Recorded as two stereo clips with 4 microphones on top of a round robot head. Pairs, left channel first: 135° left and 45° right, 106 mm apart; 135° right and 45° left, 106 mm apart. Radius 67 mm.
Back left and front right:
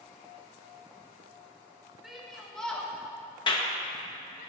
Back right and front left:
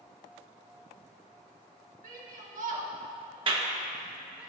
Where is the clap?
90° left, 1.1 m.